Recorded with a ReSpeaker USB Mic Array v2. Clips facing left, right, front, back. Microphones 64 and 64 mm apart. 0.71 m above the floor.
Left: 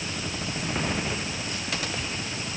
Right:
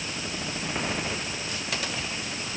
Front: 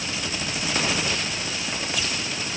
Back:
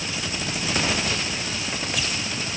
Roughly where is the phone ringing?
I don't hear a phone ringing.